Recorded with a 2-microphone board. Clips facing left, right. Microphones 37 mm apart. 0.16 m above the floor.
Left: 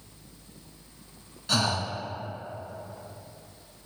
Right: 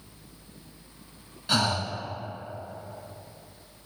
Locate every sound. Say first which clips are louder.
1.5 s breathing: right 1 dB; 10° right (ahead or behind), 0.9 m